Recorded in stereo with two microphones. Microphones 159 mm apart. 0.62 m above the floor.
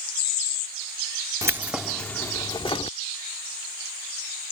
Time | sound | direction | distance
1.4 | keys jangling | 20° right (ahead or behind) | ?